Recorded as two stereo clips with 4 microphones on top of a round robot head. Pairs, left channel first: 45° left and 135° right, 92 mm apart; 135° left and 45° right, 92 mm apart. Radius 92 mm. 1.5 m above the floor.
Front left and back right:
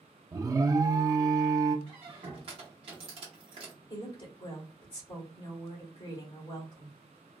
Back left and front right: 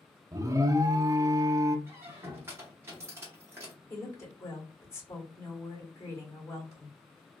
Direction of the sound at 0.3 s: 90° right.